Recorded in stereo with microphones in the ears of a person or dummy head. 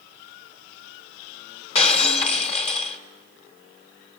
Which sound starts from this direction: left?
Breaking glass, at 1.8 s.